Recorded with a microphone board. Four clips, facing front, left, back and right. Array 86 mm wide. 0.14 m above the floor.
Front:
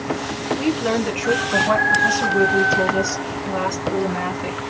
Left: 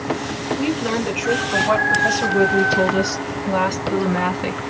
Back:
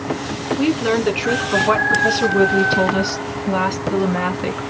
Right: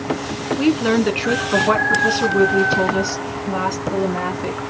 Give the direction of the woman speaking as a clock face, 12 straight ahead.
4 o'clock.